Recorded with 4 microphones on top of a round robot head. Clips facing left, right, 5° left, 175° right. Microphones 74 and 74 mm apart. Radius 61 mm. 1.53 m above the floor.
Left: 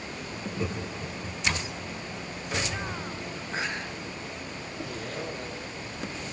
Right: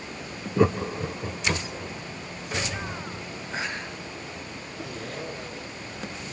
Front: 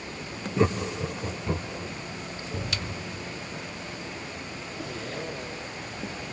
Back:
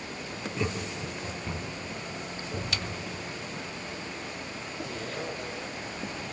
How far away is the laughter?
About 0.9 m.